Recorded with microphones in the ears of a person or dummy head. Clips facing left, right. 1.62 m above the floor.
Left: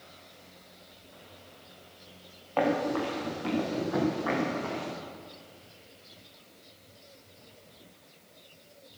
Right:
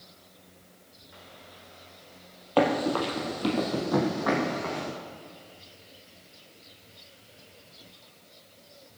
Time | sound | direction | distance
2.6 | running footsteps | 55° right (ahead or behind) | 3 m